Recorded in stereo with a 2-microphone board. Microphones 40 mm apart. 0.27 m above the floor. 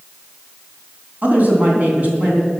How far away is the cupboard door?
No cupboard door in this recording.